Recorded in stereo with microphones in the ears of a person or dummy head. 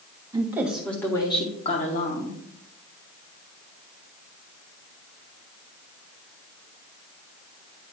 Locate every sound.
0.3 s a woman speaking: 20° right (ahead or behind), 1.5 m; by 2.4 s 45° left (ahead or behind), 2 m